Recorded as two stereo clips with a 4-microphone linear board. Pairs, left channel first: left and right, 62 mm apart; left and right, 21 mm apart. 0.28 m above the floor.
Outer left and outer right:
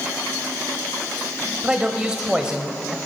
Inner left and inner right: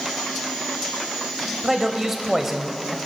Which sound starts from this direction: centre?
A man speaking, at 1.6 s.